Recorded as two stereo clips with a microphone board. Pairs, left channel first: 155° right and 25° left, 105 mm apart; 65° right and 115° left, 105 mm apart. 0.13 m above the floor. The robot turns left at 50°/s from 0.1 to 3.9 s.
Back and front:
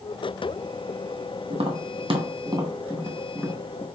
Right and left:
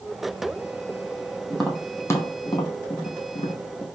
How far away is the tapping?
About 0.9 m.